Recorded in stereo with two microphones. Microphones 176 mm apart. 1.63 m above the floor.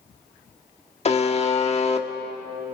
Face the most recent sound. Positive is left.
turn(degrees=35)  # may be behind; listen again after turning